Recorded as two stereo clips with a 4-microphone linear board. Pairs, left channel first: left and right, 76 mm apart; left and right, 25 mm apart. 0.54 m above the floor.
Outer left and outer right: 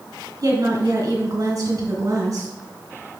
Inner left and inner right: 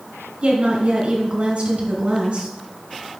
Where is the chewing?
I don't hear chewing.